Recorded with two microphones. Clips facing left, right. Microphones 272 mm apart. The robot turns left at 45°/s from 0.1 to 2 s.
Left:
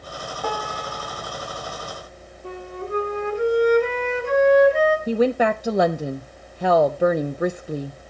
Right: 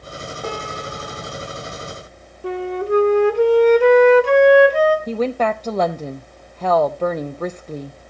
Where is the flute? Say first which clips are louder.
Right 10 dB; 80° right, 1.3 m.